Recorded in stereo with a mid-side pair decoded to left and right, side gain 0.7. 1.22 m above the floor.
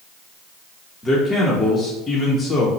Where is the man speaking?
20° left, 0.8 m.